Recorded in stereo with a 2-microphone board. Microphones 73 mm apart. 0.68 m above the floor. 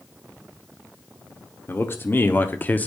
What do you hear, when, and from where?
1.7 s a man speaking: 30° left (ahead or behind), 1.4 m; by 2.9 s 20° left (ahead or behind), 0.8 m